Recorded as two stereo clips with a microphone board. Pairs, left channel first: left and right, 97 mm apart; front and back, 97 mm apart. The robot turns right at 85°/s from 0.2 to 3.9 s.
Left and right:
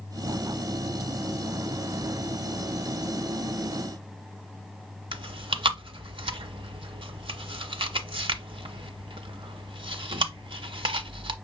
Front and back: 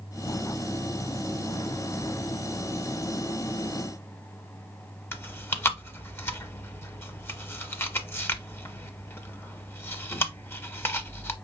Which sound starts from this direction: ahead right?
Chewing, at 5.1 s.